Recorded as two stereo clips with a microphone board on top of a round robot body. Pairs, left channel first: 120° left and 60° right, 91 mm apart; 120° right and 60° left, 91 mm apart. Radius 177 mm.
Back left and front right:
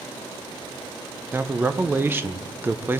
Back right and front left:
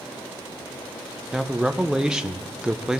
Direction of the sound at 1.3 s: 15° right.